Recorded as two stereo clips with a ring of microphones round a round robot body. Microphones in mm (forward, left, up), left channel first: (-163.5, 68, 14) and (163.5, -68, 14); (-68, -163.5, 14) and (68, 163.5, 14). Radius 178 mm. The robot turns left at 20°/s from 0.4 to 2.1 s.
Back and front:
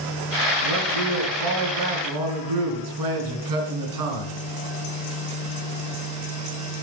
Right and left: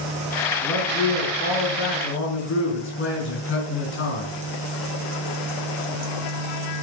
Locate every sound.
0.6 s a man speaking: 25° right, 4.5 m; by 4.3 s 55° right, 4.5 m